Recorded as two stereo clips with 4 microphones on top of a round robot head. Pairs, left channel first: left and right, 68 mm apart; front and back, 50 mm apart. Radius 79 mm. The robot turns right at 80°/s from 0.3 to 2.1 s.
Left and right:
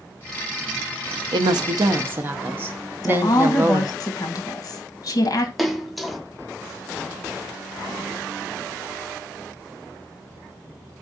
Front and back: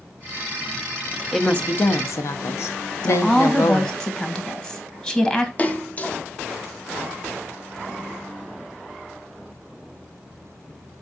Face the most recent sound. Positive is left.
turn(degrees=0)